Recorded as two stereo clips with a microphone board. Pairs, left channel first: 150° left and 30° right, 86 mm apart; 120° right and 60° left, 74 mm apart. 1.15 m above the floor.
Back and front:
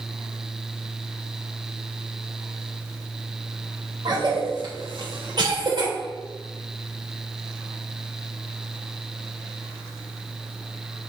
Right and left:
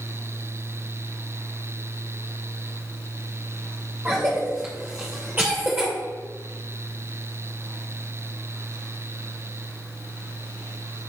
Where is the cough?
5° right, 1.3 m.